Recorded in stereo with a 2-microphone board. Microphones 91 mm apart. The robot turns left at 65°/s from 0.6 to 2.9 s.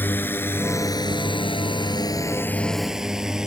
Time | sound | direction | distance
0.0 | a drone | 20° left (ahead or behind) | ?